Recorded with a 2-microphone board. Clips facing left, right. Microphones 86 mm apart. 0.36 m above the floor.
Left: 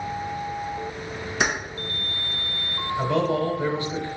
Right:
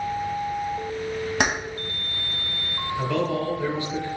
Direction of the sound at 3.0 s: 25° left (ahead or behind).